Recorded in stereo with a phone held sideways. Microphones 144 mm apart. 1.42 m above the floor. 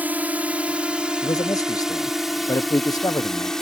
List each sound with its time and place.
0.0 s a drone: 10° right (ahead or behind); by 3.6 s 5° left (ahead or behind)
1.2 s a man speaking: 25° left (ahead or behind)